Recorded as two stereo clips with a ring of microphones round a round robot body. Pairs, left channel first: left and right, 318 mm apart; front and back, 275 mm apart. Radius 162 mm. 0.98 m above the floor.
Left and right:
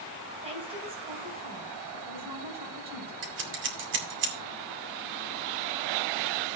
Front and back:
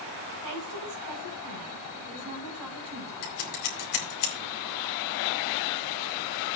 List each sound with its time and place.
0.4 s a woman speaking: 160° right, 5.5 m
3.2 s scissors: 35° right, 2.5 m